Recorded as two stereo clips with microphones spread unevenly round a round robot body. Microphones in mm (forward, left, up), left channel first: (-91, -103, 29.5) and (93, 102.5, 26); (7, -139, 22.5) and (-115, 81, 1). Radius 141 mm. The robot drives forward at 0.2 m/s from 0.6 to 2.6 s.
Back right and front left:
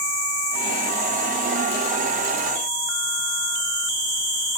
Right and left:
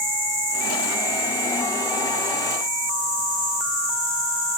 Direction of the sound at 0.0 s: 160° left.